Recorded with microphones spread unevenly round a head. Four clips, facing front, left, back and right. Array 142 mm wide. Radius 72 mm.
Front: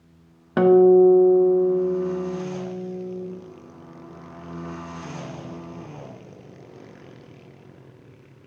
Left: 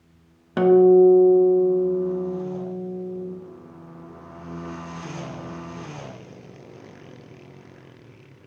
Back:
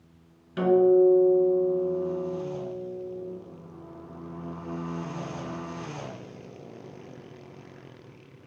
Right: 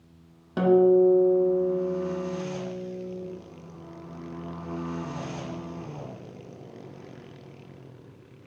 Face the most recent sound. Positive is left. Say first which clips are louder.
# left 5 dB, front 6 dB
turn(degrees=15)